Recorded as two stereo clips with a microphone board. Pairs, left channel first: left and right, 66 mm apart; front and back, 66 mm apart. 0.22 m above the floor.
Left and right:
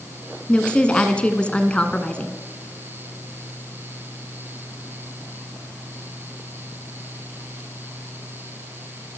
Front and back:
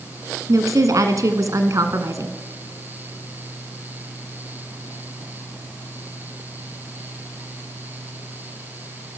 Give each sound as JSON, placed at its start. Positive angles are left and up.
{"t": 0.5, "sound": "a woman speaking", "azimuth_deg": 160, "distance_m": 2.5}